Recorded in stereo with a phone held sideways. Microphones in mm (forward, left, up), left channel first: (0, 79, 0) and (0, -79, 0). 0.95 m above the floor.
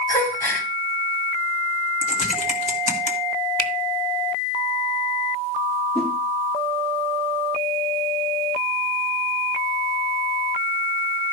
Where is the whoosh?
5° left (ahead or behind), 2.5 m.